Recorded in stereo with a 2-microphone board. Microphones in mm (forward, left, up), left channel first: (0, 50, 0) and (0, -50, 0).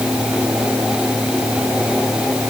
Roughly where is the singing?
I don't hear singing.